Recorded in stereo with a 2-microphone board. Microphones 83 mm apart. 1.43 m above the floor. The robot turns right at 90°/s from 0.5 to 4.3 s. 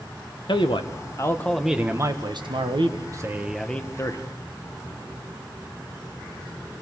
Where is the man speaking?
80° left, 1.6 m; by 4.2 s 55° left, 1.6 m.